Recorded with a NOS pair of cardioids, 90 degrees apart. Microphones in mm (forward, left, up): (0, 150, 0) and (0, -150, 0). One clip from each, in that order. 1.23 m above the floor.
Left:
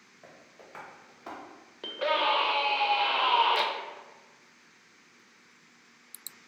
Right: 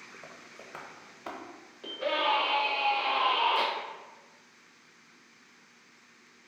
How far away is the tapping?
About 0.9 m.